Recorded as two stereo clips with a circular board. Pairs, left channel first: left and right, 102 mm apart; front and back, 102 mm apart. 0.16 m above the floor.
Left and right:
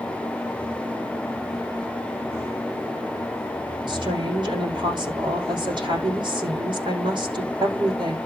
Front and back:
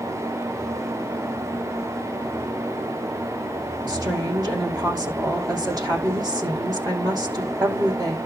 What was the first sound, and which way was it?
A woman speaking, 130° right.